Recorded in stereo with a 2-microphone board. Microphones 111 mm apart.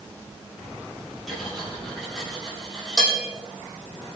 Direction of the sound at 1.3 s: Centre (ahead or behind).